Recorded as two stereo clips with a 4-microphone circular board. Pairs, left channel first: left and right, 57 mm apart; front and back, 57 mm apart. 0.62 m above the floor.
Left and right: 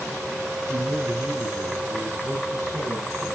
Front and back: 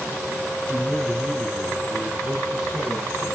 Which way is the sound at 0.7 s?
90° right.